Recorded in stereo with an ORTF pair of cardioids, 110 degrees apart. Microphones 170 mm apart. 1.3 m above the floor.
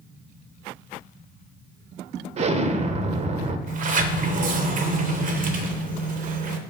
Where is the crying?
No crying in this recording.